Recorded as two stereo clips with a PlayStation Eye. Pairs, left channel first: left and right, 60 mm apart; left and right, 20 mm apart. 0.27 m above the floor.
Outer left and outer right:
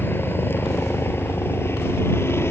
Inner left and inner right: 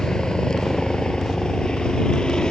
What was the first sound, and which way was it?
A helicopter, 40° left (ahead or behind).